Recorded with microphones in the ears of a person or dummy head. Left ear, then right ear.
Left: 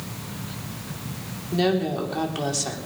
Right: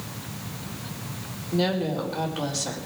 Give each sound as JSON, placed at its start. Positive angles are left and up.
{"t": 1.5, "sound": "a woman speaking", "side_deg": 80, "distance_m": 4.0}